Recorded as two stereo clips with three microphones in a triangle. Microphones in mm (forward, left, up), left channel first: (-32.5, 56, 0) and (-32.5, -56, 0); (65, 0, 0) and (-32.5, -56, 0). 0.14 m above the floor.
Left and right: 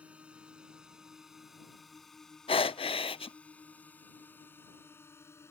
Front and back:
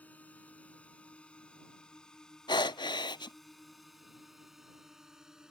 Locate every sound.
0.0 s a drone: 25° right; by 5.5 s 130° left
2.5 s breathing: 70° left